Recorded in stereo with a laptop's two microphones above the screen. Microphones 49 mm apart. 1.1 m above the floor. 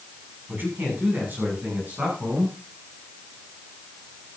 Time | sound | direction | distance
0.5 | a man speaking | 45° right (ahead or behind) | 7.5 m